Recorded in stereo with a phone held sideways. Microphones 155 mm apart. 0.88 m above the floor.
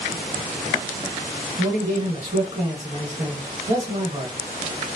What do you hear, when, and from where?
1.6 s a man speaking: 35° right (ahead or behind), 1.4 m